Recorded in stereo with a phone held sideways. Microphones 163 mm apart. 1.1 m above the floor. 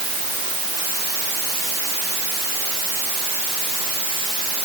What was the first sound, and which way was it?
Only background noise.